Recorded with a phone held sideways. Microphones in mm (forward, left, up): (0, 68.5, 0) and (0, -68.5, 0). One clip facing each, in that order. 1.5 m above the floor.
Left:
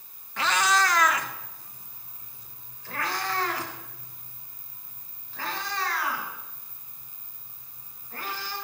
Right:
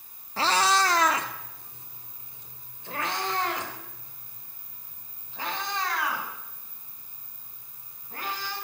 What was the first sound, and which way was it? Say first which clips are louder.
A cat meowing: right 1 dB; 30° right (ahead or behind).